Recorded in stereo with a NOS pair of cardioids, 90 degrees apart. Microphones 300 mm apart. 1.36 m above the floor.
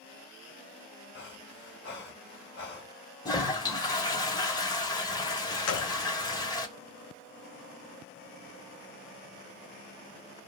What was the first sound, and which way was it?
Breathing, 35° left.